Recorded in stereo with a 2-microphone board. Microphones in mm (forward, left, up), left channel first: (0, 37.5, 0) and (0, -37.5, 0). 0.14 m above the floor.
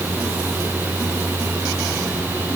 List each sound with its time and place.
Only background noise.